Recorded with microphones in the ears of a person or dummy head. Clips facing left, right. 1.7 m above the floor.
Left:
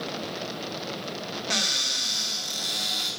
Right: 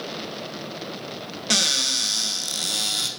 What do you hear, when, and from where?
1.5 s a cupboard door: 45° right (ahead or behind), 1.5 m